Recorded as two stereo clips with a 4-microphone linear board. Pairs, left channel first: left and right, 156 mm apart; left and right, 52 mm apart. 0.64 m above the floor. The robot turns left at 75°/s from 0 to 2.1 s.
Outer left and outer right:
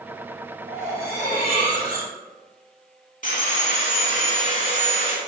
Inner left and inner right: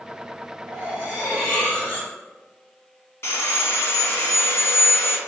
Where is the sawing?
55° left (ahead or behind), 0.9 m.